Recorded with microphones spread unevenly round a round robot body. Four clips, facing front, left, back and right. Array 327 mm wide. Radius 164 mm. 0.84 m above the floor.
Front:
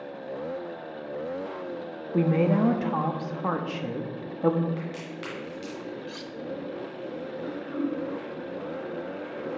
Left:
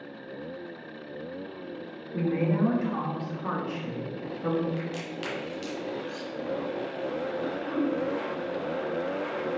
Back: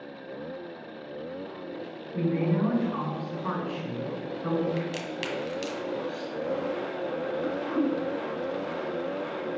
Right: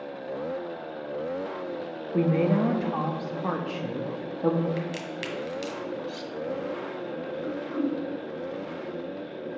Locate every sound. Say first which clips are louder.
2.1 s a woman speaking: right 3 dB, front 4 dB; 30° right, 0.9 m
4.8 s a crack: right 1 dB, back 4 dB; 160° right, 1.8 m
6.1 s cutlery clinking: right 1 dB, back 4 dB; 30° right, 0.5 m
7.4 s throat clearing: right 1 dB, back 2 dB; 160° left, 0.7 m